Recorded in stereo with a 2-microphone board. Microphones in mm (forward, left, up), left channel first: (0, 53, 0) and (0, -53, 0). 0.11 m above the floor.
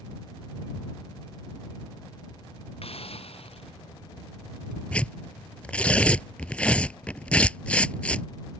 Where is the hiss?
65° left (ahead or behind).